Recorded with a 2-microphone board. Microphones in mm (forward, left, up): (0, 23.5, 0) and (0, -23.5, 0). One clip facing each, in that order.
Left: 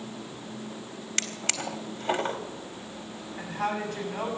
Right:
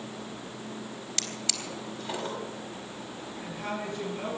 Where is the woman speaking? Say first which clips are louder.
Left 5 dB; 80° left, 7.5 m.